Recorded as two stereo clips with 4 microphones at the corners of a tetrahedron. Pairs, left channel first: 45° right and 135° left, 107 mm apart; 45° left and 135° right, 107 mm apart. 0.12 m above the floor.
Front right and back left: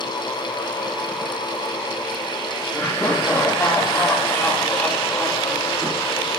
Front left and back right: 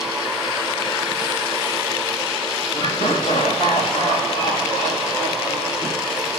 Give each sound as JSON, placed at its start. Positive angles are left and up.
{"t": 2.7, "sound": "laughter", "azimuth_deg": 25, "distance_m": 8.0}